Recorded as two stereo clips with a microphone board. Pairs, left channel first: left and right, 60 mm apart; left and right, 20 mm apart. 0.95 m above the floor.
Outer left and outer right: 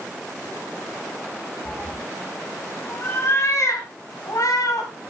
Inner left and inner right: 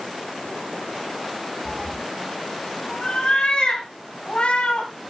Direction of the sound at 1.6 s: 20° left (ahead or behind).